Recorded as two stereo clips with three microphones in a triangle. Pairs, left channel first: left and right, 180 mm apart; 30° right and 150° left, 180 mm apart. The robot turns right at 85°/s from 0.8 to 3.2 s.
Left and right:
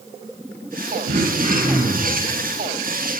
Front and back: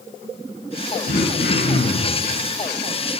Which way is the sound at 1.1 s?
75° right.